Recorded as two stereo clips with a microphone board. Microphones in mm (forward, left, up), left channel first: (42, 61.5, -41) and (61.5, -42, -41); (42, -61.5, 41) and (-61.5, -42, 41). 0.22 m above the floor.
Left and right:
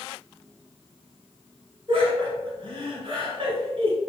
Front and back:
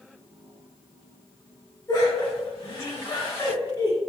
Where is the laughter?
60° right, 1.9 m.